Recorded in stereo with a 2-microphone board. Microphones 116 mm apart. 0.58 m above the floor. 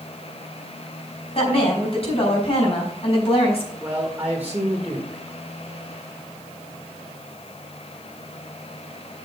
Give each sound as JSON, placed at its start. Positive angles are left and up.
{"t": 1.4, "sound": "a woman speaking", "side_deg": 55, "distance_m": 4.5}
{"t": 3.8, "sound": "a man speaking", "side_deg": -15, "distance_m": 1.5}